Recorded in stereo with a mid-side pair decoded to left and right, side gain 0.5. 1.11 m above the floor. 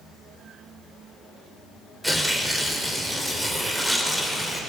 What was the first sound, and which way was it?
Tearing paper, 5° right.